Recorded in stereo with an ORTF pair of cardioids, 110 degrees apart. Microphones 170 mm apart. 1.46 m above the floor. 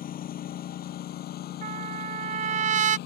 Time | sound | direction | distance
0.0 | a lawn mower | 60° left | ?
1.6 | a trumpet | 45° right | ?